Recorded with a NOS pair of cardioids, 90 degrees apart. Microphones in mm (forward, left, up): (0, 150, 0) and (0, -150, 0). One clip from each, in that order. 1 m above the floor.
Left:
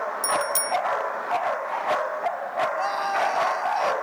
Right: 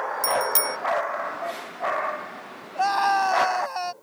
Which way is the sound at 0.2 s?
20° right.